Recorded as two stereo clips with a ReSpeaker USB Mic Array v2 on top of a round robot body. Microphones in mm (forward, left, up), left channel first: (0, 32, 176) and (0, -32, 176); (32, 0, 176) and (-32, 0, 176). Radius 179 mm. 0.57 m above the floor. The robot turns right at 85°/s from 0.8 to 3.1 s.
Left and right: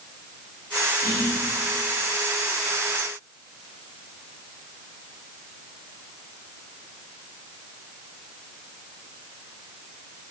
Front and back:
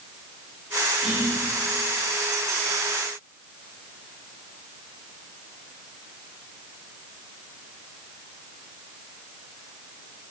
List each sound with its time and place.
1.0 s whispering: 100° left, 3 m; by 1.4 s 130° left, 3 m